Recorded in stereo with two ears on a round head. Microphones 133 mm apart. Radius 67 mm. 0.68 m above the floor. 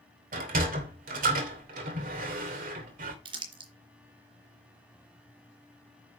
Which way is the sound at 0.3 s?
65° right (ahead or behind).